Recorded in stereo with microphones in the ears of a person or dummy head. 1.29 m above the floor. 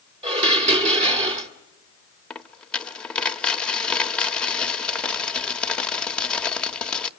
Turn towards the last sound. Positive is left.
turn(degrees=10)  # may be behind; listen again after turning